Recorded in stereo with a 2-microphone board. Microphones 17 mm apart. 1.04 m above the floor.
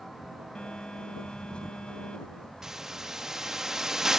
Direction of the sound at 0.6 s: 65° left (ahead or behind).